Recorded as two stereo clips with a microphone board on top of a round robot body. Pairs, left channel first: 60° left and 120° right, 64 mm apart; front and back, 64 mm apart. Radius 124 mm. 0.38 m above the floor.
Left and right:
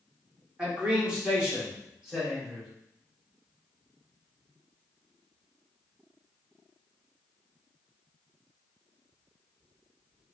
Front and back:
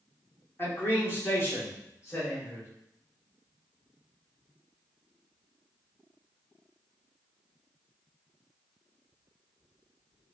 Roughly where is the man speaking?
Ahead right.